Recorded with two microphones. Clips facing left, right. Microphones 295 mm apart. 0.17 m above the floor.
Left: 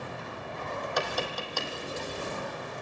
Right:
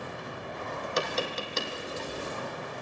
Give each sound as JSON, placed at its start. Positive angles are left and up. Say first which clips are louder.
{"t": 1.0, "sound": "tapping", "louder": "right 3 dB", "side_deg": -25, "distance_m": 1.5}